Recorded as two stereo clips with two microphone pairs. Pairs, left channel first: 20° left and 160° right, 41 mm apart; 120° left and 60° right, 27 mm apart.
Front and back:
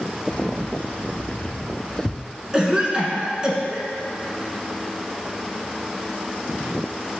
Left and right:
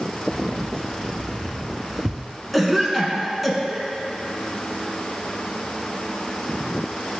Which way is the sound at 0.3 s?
75° left.